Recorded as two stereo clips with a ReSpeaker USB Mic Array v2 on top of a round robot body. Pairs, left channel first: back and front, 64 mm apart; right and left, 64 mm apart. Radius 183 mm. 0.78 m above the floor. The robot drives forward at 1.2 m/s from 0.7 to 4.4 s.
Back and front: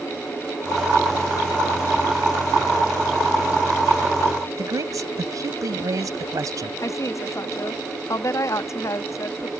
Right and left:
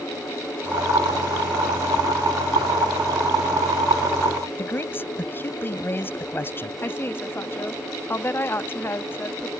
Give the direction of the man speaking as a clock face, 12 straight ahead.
1 o'clock.